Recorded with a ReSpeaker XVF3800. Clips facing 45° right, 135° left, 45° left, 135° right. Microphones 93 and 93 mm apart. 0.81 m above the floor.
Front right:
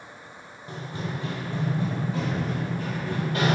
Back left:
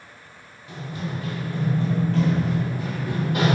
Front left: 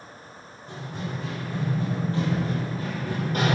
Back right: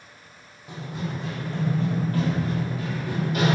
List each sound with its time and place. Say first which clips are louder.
0.7 s running footsteps: back left 1 dB, back right 2 dB; 60° right, 1.0 m; by 3.5 s 70° left, 1.2 m